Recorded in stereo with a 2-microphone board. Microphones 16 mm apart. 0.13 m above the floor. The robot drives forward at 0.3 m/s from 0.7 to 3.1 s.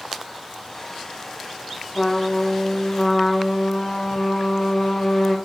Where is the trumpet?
20° left (ahead or behind), 5 m; by 5.3 s 25° left (ahead or behind), 4.5 m.